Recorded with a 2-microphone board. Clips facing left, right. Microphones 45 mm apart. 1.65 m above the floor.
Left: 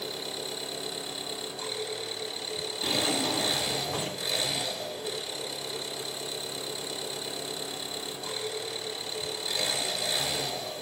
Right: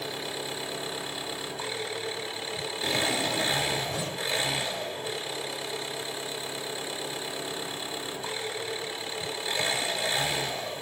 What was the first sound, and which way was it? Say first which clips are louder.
An engine running: right 2 dB; 35° right (ahead or behind).